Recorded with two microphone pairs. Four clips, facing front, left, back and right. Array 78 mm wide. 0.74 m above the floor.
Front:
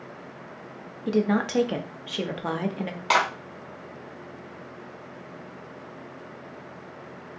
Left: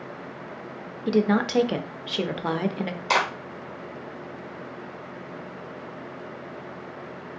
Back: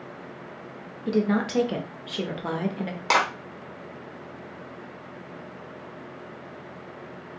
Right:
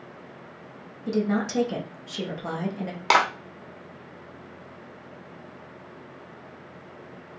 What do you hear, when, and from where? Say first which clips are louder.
1.1 s a woman speaking: left 4 dB, even; 85° left, 0.5 m
3.1 s a clap: right 3 dB, even; 100° right, 1.1 m